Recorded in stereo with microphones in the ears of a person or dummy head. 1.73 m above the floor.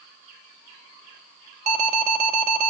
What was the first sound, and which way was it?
An alarm, 50° right (ahead or behind).